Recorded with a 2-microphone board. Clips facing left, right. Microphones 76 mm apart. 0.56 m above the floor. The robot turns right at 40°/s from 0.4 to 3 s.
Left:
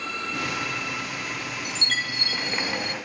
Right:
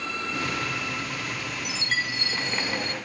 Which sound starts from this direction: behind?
A chime, at 1.6 s.